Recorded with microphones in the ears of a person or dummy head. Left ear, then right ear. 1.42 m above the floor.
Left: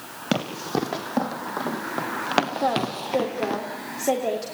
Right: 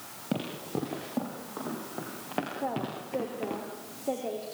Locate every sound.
0.3 s running footsteps: 65° left (ahead or behind), 4.5 m; by 3.6 s 45° left (ahead or behind), 2.5 m
2.6 s a woman speaking: 75° left (ahead or behind), 3.5 m